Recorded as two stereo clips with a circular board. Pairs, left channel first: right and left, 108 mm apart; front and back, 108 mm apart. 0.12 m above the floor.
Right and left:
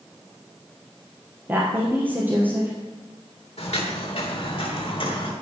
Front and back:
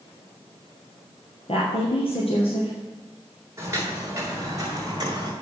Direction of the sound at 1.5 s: 20° left.